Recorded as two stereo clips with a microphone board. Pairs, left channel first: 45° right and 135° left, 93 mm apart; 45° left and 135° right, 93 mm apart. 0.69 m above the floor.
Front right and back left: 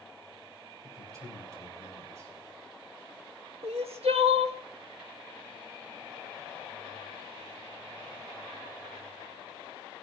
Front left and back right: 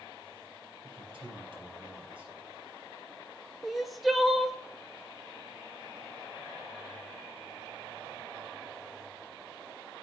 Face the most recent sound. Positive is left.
turn(degrees=135)